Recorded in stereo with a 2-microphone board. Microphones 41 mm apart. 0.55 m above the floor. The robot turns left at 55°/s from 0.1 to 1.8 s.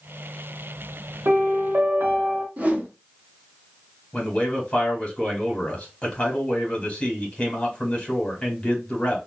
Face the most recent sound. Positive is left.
turn(degrees=25)  # may be behind; listen again after turning